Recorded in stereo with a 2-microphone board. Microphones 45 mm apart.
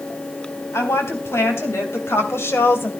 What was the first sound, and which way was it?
A woman speaking, 75° left (ahead or behind).